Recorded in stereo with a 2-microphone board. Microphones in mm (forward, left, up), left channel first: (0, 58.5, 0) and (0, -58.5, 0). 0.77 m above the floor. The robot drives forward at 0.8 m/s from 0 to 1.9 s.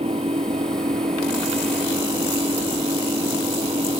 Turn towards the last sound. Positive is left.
turn(degrees=-50)  # may be behind; listen again after turning